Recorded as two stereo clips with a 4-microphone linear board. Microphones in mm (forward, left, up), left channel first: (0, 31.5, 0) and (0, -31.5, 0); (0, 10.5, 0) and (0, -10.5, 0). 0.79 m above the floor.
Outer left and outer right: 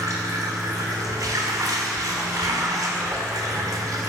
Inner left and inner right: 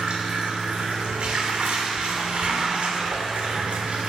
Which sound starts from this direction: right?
Running water, at 0.0 s.